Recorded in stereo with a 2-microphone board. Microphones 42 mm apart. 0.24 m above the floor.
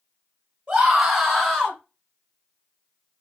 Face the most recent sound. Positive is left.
turn(degrees=20)  # may be behind; listen again after turning